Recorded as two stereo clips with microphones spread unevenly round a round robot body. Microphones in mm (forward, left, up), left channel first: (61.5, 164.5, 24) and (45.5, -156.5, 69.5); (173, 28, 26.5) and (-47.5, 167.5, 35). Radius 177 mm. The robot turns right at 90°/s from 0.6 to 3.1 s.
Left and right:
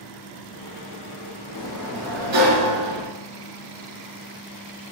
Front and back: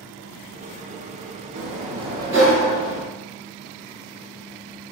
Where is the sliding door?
160° left, 1.2 m; by 3.1 s 65° right, 1.2 m.